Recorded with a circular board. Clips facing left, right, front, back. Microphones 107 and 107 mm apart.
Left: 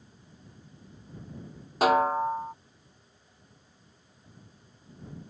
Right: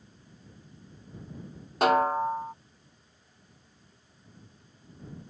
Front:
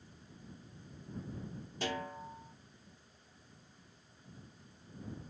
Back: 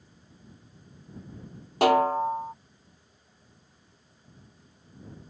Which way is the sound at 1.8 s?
Straight behind.